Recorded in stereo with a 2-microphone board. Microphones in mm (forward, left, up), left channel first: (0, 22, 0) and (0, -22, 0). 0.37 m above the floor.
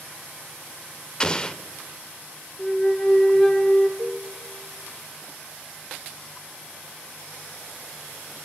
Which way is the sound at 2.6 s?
15° left (ahead or behind).